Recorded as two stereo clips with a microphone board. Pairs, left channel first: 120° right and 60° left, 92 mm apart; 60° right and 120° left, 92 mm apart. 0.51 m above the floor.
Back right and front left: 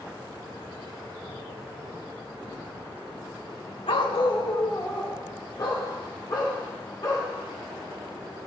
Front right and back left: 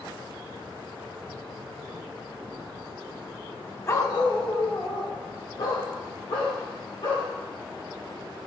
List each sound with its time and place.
3.9 s a dog barking: 120° right, 0.7 m; by 7.3 s 70° right, 5.5 m